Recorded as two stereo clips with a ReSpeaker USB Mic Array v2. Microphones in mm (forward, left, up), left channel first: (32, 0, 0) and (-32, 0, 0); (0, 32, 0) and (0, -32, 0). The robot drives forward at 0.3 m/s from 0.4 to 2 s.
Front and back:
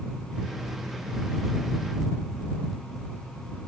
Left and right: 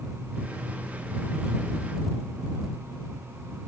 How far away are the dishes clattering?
No dishes clattering in this recording.